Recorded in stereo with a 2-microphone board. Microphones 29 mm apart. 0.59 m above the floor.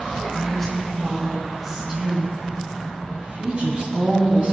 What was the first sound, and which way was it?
A woman speaking, 20° left (ahead or behind).